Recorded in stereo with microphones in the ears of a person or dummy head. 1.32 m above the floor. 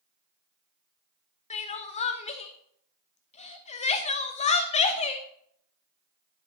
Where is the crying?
40° left (ahead or behind), 0.8 m.